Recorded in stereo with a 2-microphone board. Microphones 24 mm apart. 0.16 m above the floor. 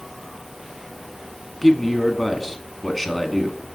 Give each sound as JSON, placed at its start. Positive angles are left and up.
{"t": 1.6, "sound": "a man speaking", "side_deg": 5, "distance_m": 1.1}